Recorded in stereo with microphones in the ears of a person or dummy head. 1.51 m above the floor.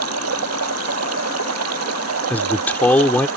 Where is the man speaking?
10° left (ahead or behind).